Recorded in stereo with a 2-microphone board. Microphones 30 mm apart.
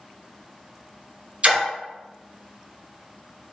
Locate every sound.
1.4 s a splash: 45° right (ahead or behind), 0.9 m